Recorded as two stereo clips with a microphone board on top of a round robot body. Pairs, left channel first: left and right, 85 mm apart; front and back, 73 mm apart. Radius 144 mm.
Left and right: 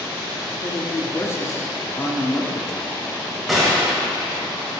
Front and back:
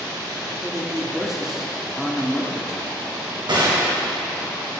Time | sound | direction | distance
0.5 | a man speaking | 95° left | 1.0 m
3.5 | a gunshot | straight behind | 1.7 m